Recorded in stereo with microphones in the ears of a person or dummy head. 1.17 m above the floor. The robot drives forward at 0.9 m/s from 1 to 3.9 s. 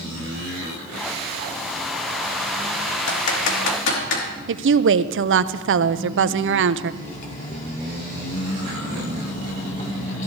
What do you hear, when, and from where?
3.1 s typing on a keyboard: 70° left (ahead or behind), 2 m; by 4.2 s 60° left (ahead or behind), 2.5 m
4.5 s a woman speaking: 60° right (ahead or behind), 0.5 m
7.0 s cutlery clinking: 40° left (ahead or behind), 1.4 m